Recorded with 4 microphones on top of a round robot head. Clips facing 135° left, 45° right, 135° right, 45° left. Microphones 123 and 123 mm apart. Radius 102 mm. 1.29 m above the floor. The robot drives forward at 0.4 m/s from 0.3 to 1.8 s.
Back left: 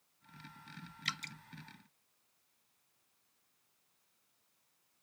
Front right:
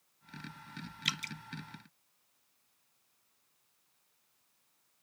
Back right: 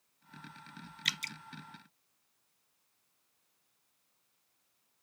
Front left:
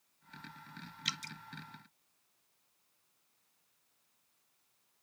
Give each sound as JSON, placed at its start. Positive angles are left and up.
{"t": 1.1, "sound": "dripping", "azimuth_deg": -115}